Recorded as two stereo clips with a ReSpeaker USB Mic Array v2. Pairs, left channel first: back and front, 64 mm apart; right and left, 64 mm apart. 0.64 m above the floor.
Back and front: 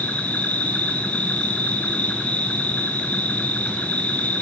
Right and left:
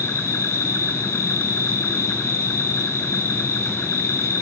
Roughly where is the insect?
Behind right.